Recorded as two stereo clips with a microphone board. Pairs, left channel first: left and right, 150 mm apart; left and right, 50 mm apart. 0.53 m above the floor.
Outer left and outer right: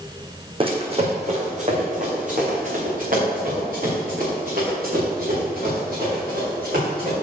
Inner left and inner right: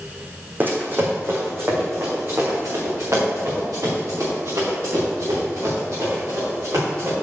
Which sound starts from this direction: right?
Running footsteps, at 0.6 s.